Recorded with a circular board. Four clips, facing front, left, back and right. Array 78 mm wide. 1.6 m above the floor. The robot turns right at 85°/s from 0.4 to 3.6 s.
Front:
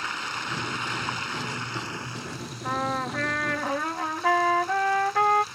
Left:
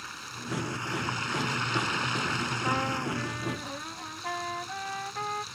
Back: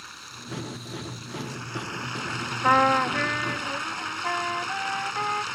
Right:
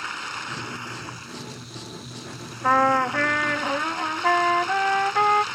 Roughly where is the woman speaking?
No woman speaking in this recording.